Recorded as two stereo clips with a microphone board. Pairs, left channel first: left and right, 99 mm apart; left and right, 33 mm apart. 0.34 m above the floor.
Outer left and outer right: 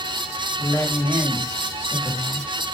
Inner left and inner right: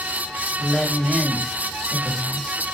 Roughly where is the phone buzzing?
No phone buzzing in this recording.